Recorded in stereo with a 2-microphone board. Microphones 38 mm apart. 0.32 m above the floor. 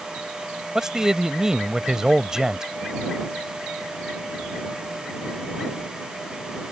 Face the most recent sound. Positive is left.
turn(degrees=-15)  # may be behind; listen again after turning